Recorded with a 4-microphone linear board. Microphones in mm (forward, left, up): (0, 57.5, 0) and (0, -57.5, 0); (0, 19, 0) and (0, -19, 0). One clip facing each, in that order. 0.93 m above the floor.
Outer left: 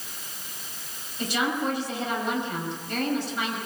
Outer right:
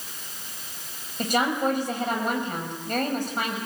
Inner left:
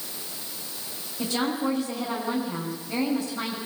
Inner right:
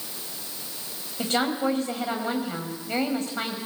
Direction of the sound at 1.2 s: 45° right (ahead or behind).